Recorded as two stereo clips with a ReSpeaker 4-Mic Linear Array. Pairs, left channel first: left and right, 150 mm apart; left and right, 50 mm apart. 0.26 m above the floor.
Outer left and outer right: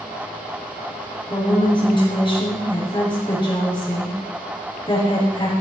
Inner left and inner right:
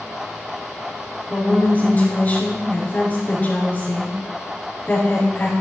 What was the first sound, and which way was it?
A woman speaking, 30° left (ahead or behind).